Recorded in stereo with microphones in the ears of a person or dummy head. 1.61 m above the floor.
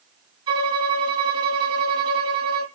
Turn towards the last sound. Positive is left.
turn(degrees=-30)  # may be behind; listen again after turning